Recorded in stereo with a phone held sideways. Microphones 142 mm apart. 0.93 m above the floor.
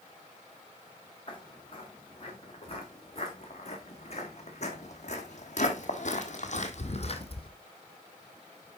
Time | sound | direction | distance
1.3 | footsteps | 40° left (ahead or behind) | 4.5 m